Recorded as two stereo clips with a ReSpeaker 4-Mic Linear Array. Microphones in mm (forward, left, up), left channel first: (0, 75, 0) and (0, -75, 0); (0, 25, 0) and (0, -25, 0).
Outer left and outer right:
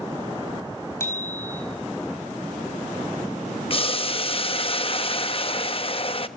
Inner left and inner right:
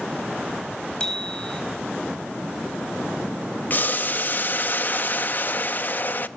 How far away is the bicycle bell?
About 4.5 m.